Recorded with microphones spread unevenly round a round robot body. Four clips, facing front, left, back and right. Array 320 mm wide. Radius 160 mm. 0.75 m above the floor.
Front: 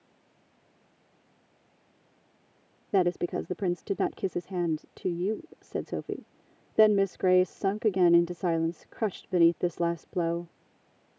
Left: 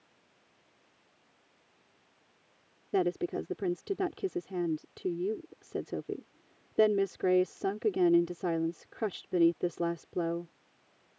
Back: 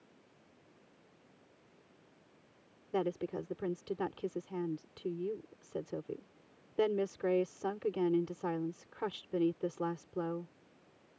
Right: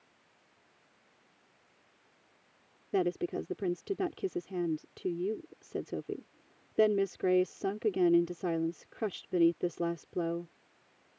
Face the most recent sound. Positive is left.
turn(degrees=5)